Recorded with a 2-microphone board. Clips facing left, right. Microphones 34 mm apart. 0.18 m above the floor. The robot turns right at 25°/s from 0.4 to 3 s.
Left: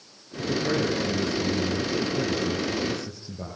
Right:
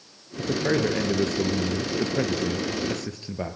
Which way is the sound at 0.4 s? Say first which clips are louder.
Right 2 dB; 140° right.